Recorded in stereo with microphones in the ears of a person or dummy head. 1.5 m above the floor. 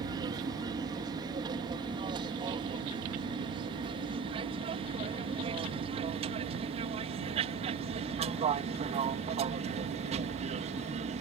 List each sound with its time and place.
0.0 s an aircraft: 25° right (ahead or behind); by 11.2 s 40° right (ahead or behind)